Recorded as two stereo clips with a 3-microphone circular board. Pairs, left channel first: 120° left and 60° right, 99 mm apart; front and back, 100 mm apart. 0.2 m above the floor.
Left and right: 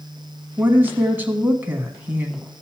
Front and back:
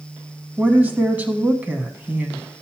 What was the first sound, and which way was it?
A woman speaking, 115° right.